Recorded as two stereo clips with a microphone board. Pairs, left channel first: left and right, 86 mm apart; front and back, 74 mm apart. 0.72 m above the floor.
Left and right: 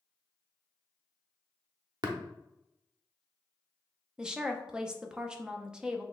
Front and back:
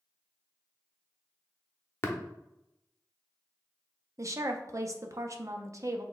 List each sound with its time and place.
2.0 s tapping: 55° right, 0.8 m
4.2 s a woman speaking: 165° right, 0.6 m